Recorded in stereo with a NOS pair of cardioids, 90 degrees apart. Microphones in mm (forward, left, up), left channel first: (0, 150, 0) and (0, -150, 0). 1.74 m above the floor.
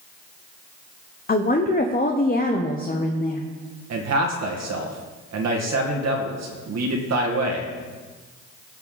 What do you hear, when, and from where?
1.3 s a woman speaking: 30° left, 1.0 m
3.9 s a man speaking: 60° right, 2 m